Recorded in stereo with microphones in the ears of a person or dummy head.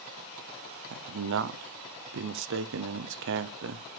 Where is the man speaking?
70° right (ahead or behind), 0.8 m.